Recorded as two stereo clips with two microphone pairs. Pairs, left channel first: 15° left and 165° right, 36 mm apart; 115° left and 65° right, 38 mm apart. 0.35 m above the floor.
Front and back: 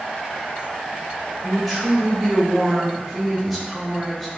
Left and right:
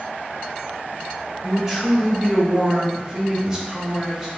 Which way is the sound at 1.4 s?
85° right.